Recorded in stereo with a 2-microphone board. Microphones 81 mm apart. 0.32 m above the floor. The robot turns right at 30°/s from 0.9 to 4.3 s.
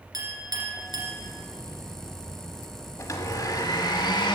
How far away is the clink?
About 2.5 m.